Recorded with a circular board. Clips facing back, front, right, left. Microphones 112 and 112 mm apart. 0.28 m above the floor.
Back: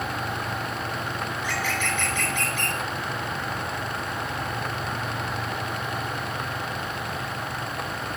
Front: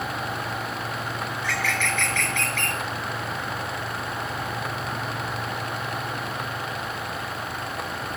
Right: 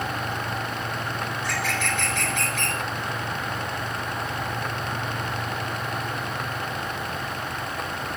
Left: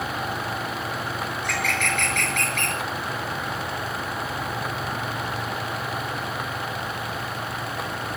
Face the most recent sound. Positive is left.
turn(degrees=110)